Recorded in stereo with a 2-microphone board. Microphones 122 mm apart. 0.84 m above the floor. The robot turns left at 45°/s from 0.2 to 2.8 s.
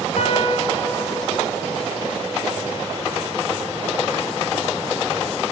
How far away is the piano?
About 3.5 m.